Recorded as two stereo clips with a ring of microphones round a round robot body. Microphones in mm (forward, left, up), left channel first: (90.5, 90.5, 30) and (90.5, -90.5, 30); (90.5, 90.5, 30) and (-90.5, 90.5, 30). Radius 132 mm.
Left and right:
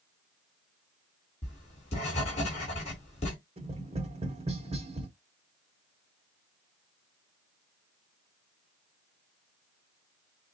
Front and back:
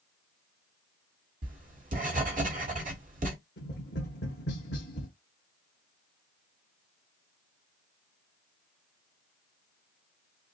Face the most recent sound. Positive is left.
turn(degrees=-35)